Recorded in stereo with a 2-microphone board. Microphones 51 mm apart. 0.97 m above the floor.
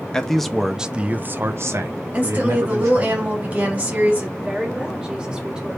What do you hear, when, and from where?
0.1 s a man speaking: 10° left (ahead or behind), 0.7 m; by 3.1 s 70° right (ahead or behind), 1.2 m
2.1 s a woman speaking: 30° right (ahead or behind), 1.9 m
4.4 s a woman speaking: 15° right (ahead or behind), 1.6 m